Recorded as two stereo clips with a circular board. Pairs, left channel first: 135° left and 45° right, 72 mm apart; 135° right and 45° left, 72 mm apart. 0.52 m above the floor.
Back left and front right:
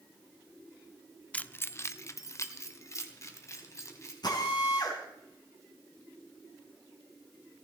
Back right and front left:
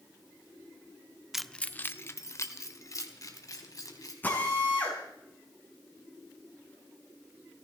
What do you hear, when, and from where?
1.3 s keys jangling: 115° left, 0.6 m; by 4.1 s 175° right, 3 m
4.2 s a drill: 160° left, 4.5 m